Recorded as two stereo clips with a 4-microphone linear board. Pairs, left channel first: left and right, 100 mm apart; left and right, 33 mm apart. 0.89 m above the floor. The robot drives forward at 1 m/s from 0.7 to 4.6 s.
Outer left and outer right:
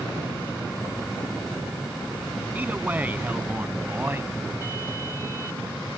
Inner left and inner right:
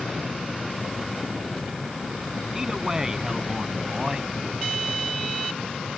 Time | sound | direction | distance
2.5 | a man speaking | 15° right (ahead or behind) | ?